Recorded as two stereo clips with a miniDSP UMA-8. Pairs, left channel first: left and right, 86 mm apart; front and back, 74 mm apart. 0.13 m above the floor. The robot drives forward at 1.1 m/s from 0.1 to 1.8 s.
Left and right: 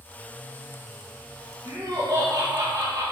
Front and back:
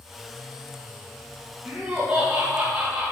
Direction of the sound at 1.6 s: 110° right.